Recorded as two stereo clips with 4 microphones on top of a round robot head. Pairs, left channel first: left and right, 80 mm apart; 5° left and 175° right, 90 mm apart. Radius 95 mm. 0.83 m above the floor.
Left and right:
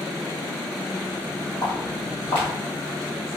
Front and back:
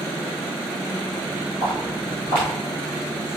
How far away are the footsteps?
About 1.0 m.